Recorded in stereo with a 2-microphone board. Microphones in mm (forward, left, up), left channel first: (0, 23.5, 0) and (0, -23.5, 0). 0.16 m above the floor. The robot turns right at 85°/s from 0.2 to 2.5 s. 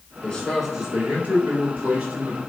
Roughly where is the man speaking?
Behind left.